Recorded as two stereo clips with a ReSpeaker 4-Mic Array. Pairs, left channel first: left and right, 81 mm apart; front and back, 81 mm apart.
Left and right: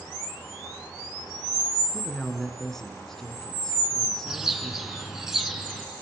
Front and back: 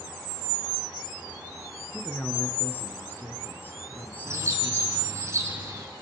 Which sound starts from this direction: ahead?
A man speaking, at 1.9 s.